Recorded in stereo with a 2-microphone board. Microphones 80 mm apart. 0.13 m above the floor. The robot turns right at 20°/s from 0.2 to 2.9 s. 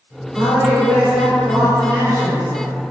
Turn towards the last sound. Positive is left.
turn(degrees=-55)